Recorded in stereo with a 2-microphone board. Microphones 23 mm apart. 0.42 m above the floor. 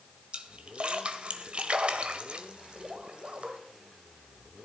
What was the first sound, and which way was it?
A splash, 55° right (ahead or behind).